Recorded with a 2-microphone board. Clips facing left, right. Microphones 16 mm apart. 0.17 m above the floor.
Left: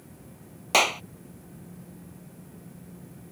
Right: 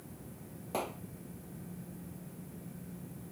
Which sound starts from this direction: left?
A clap, at 0.7 s.